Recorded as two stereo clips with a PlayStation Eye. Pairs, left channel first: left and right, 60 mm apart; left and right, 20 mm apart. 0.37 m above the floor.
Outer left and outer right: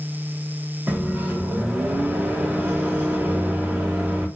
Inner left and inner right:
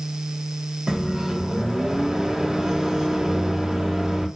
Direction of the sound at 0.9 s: 30° right (ahead or behind).